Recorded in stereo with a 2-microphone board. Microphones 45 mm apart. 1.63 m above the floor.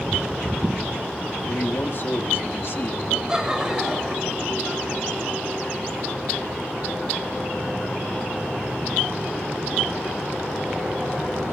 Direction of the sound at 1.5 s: 60° left (ahead or behind).